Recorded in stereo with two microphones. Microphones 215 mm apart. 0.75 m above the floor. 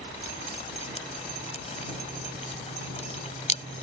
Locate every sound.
0.2 s dripping: 30° left (ahead or behind)